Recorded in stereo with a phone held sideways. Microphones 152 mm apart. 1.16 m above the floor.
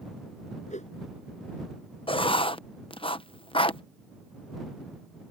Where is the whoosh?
50° left (ahead or behind).